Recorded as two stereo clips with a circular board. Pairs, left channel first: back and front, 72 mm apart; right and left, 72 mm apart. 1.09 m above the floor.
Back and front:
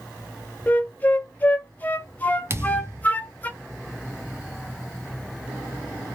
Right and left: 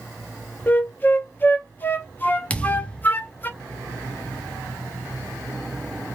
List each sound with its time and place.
0.7 s a flute: 130° right, 0.6 m
2.5 s a thud: 25° right, 0.6 m